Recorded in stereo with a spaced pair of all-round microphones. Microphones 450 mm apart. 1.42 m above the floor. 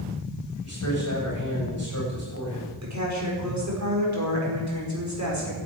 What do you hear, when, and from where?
0.6 s a man speaking: 35° left (ahead or behind), 7 m
2.8 s a woman speaking: 35° right (ahead or behind), 5 m